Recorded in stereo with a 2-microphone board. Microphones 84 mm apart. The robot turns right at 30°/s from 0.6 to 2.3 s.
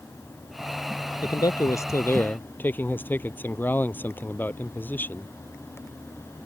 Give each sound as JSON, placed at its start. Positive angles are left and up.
{"t": 1.2, "sound": "a man speaking", "azimuth_deg": 125}